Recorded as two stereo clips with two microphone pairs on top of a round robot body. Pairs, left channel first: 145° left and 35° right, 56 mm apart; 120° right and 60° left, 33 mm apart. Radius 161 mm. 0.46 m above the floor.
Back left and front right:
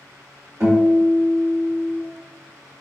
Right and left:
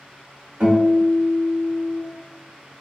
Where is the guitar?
10° left, 1.3 m.